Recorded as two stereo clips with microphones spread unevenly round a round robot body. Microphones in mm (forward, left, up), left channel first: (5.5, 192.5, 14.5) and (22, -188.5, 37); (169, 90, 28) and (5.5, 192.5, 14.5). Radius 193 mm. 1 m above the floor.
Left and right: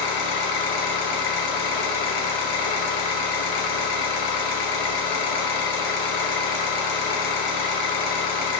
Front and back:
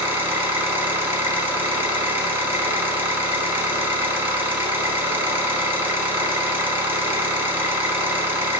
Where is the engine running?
70° left, 1.0 m.